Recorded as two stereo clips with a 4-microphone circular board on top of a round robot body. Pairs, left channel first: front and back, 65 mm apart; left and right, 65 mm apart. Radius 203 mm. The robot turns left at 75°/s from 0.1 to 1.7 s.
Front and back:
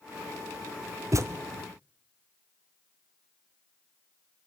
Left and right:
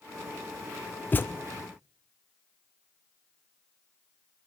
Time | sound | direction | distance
1.1 | a thud | 150° left | 0.7 m